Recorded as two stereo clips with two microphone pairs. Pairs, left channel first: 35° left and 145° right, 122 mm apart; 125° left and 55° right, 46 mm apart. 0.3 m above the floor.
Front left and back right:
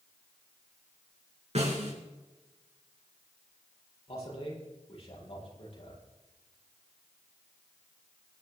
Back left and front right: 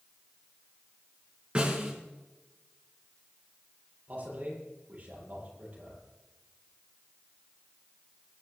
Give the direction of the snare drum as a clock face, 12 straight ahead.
4 o'clock.